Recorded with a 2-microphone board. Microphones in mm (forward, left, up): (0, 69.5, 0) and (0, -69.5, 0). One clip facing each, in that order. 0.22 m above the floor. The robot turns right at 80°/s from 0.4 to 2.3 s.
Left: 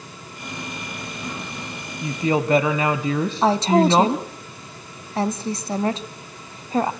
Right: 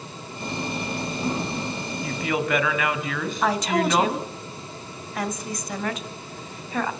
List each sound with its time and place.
2.0 s a woman speaking: 20° left (ahead or behind), 1.2 m; by 4.2 s 30° left (ahead or behind), 1.2 m
3.4 s a woman speaking: 30° left (ahead or behind), 1.1 m